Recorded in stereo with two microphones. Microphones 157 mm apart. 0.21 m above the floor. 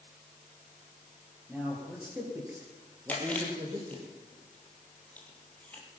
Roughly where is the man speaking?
Centre.